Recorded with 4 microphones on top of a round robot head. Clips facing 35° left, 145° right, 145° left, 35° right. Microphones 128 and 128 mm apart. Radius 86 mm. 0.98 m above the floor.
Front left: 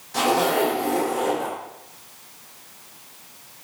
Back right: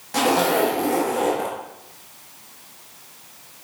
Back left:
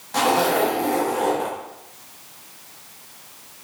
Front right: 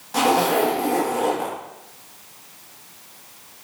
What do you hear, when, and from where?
0.1 s a zipper: 120° right, 1.7 m